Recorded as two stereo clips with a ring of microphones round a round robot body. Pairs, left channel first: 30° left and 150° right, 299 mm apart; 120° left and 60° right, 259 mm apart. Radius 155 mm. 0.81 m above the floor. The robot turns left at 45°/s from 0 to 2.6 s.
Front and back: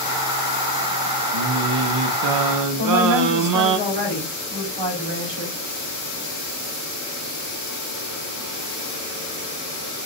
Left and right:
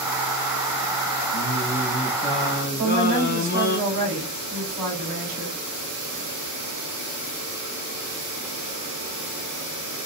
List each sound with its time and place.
1.3 s singing: 120° right, 0.6 m; by 3.8 s straight behind, 0.6 m
2.8 s a woman speaking: 85° right, 3.5 m